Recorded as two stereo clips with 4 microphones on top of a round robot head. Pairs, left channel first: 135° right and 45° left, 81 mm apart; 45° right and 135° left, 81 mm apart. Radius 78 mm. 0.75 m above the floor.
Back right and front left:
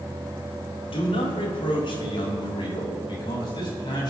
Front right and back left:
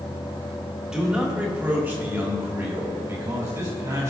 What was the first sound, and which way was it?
A man speaking, 145° right.